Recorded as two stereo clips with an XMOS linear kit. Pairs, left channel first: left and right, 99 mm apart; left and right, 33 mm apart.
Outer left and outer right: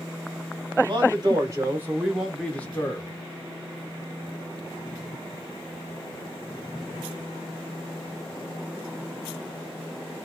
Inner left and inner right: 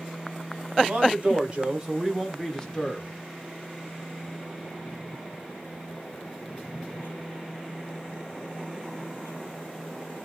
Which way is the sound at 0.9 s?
45° right (ahead or behind).